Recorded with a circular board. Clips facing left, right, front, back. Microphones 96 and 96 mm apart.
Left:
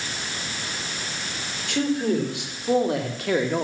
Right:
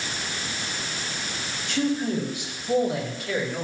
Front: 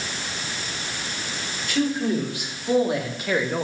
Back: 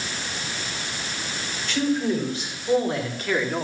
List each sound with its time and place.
1.7 s a man speaking: 80° left, 5 m